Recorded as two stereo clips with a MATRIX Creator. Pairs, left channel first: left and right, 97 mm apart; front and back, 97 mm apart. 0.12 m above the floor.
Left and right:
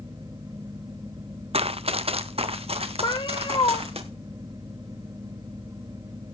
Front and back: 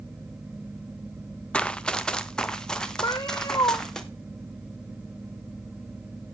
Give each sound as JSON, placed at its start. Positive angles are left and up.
{"t": 1.5, "sound": "running footsteps", "azimuth_deg": -80, "distance_m": 0.7}
{"t": 3.0, "sound": "a cat meowing", "azimuth_deg": 50, "distance_m": 1.2}